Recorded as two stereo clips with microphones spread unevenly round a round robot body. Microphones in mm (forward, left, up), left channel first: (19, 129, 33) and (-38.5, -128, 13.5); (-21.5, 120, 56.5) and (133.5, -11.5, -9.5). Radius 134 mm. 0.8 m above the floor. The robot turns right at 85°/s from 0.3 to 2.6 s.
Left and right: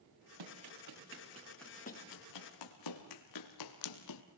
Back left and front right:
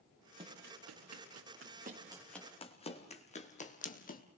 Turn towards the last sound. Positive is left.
turn(degrees=100)